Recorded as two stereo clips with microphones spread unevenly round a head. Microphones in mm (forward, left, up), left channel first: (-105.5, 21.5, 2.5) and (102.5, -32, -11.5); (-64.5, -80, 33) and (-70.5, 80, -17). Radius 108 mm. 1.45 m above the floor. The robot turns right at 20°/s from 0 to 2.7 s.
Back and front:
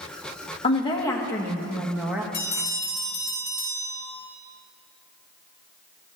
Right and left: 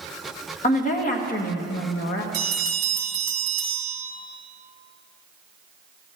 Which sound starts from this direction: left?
A bell, at 2.3 s.